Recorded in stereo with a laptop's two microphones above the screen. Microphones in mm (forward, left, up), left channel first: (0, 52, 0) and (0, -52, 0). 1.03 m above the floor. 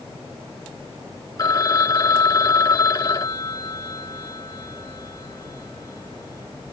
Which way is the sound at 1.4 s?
35° left (ahead or behind).